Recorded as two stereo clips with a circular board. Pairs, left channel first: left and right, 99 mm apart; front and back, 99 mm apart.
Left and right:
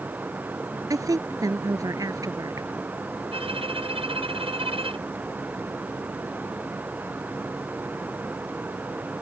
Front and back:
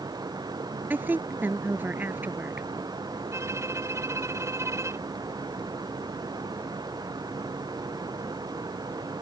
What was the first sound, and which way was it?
A woman speaking, 120° right.